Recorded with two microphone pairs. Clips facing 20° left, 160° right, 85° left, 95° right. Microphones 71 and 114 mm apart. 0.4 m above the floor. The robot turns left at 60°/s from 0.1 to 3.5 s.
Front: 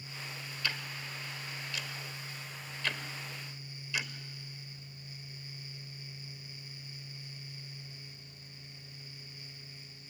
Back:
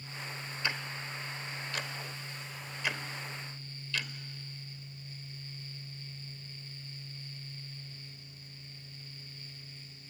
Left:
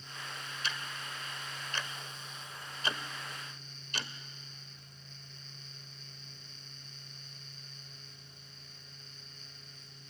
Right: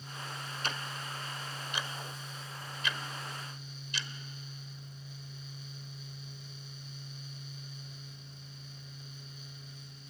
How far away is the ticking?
About 1.1 m.